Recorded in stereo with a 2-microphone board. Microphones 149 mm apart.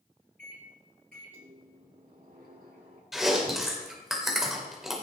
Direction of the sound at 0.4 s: 75° right (ahead or behind).